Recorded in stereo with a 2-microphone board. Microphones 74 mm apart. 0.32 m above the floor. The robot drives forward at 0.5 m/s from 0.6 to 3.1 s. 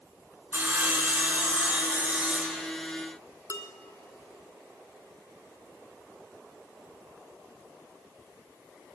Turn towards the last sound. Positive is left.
turn(degrees=45)  # may be behind; listen again after turning